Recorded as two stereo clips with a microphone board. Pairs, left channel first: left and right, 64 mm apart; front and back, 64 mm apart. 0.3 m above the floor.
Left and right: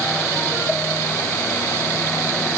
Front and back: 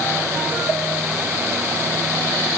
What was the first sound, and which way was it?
Only background noise.